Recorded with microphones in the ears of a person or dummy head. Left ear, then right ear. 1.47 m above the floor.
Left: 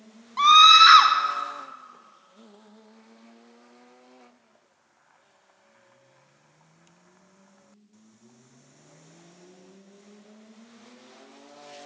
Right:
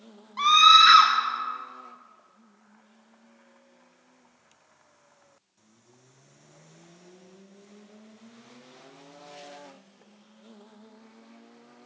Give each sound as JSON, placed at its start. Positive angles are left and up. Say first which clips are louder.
{"t": 0.4, "sound": "a scream", "louder": "left 3 dB", "side_deg": 15, "distance_m": 0.6}